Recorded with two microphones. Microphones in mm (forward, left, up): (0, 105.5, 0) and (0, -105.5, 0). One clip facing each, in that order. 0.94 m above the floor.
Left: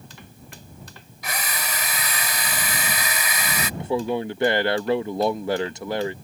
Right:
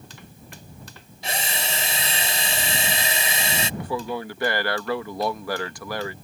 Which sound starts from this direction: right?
A drill, at 1.2 s.